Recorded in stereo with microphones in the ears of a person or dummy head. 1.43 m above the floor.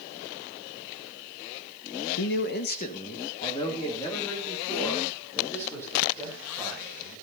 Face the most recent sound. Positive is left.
turn(degrees=15)  # may be behind; listen again after turning